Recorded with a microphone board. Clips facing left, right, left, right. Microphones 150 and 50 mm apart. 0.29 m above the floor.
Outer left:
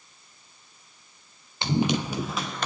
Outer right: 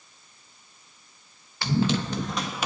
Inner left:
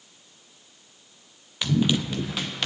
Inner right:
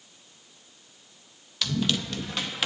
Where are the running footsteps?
20° left (ahead or behind), 1.6 m; by 2.7 s 10° right (ahead or behind), 1.1 m.